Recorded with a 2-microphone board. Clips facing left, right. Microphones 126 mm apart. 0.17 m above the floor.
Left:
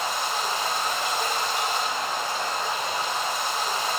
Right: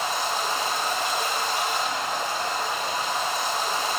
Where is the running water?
45° right (ahead or behind), 4 m.